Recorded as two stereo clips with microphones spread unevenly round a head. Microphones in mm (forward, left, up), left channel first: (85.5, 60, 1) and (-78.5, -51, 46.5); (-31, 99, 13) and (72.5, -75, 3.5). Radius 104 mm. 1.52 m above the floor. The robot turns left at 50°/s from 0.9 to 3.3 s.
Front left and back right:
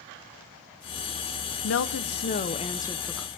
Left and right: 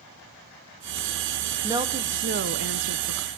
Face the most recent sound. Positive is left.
turn(degrees=-65)